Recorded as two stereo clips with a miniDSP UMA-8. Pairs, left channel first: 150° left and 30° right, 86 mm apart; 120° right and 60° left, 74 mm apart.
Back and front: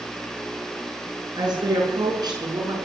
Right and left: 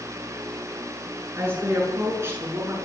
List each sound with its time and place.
1.4 s a woman speaking: 5° left, 8.5 m; by 2.8 s 10° left, 9 m